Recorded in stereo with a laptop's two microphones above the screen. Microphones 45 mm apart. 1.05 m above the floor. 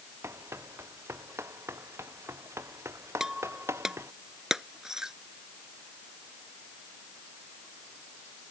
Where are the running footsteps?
75° right (ahead or behind); by 4.1 s 85° right.